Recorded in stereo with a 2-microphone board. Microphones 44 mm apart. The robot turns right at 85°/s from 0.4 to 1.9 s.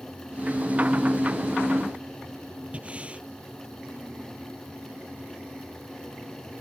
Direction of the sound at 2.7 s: 30° right (ahead or behind).